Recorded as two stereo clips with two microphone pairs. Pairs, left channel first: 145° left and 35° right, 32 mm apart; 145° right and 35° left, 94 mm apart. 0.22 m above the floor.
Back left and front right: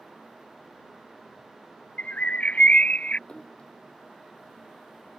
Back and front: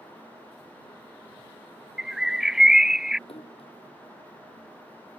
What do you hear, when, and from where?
2.0 s a bird: 115° left
3.3 s a splash: 155° right